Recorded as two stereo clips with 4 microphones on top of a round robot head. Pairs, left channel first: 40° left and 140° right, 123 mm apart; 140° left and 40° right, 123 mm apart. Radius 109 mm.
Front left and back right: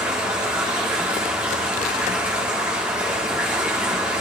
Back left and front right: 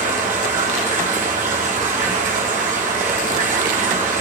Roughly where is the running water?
Ahead right.